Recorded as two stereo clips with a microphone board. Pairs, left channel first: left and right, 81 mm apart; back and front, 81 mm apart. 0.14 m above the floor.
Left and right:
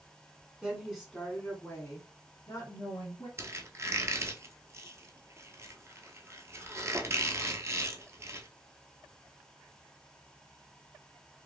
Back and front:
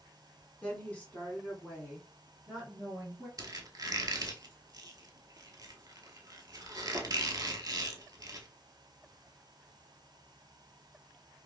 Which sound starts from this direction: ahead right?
A squeak, at 3.4 s.